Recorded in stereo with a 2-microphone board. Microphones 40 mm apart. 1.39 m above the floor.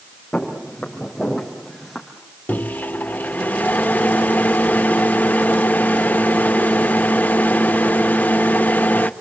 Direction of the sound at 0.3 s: 15° left (ahead or behind).